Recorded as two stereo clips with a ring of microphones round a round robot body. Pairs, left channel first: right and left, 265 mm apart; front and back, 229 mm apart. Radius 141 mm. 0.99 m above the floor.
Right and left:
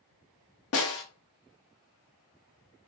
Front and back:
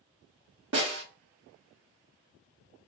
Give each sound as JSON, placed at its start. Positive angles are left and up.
{"t": 0.7, "sound": "a snare drum", "azimuth_deg": -130, "distance_m": 0.7}